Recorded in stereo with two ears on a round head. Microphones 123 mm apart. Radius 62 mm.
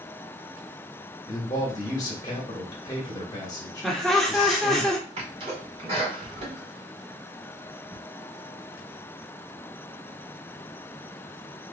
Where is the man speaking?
30° left (ahead or behind), 1.6 m.